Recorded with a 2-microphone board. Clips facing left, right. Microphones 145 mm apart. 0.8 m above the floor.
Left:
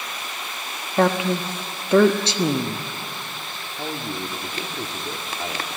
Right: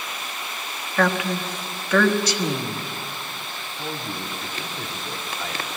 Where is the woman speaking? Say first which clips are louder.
Left 3 dB; 25° left (ahead or behind), 1.2 m.